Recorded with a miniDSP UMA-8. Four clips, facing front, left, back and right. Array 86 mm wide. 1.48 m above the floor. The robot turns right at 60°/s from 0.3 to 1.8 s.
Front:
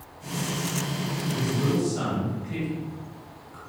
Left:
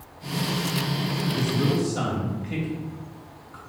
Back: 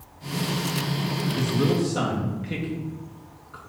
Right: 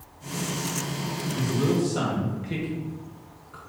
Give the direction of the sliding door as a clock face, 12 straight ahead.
No sliding door in this recording.